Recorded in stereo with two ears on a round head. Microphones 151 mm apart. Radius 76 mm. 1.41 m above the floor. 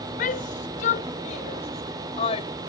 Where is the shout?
50° left (ahead or behind); by 2.5 s 35° left (ahead or behind).